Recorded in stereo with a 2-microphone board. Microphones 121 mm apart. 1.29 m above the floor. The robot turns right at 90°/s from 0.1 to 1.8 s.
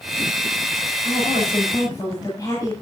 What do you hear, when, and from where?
1.0 s a woman speaking: 80° left, 7.5 m; by 2.7 s 150° left, 7.5 m